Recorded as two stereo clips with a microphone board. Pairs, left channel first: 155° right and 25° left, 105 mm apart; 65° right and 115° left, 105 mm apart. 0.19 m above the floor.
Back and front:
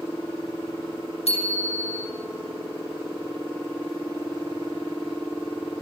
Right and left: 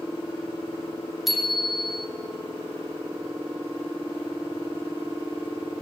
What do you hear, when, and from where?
1.3 s a bicycle bell: 160° right, 5.5 m